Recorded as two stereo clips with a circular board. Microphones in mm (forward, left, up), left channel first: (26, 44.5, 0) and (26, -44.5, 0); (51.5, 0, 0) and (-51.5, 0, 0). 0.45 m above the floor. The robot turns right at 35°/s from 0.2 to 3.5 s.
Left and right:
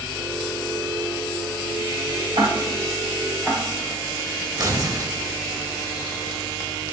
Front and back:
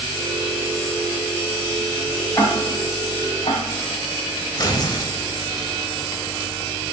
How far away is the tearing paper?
About 1.1 m.